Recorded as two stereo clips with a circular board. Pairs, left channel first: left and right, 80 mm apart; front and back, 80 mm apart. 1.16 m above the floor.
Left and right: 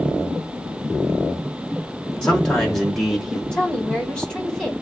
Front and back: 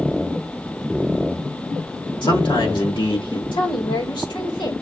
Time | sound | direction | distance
2.2 | a man speaking | 10° left | 2.5 m
3.5 | a woman speaking | 10° left | 2.5 m